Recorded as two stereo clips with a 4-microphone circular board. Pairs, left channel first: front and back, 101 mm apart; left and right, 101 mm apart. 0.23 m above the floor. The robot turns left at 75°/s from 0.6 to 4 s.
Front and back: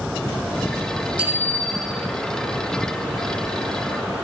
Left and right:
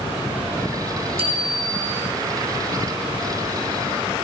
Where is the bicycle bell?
100° right, 7.5 m; by 2.1 s 170° right, 7.5 m.